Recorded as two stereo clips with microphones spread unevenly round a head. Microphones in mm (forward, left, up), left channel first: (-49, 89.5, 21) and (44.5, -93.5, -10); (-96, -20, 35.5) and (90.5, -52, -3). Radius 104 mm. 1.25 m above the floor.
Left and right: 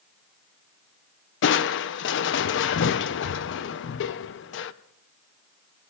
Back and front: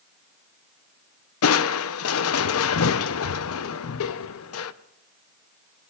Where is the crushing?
150° left, 0.5 m.